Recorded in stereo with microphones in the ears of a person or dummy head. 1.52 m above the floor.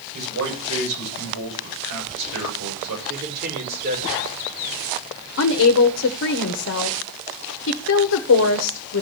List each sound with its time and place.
0.1 s a man speaking: 75° right (ahead or behind), 8 m
3.1 s a man speaking: 50° right (ahead or behind), 5 m
5.4 s a woman speaking: 55° left (ahead or behind), 1.0 m